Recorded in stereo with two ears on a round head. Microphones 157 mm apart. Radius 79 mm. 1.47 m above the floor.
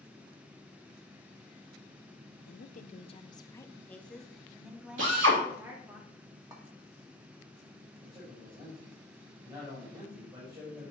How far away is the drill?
About 4 m.